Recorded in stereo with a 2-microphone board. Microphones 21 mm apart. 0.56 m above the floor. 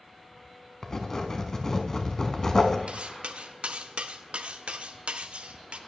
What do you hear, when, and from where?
0.8 s writing: 25° left (ahead or behind), 1.0 m
2.9 s cutlery clinking: 65° right (ahead or behind), 0.5 m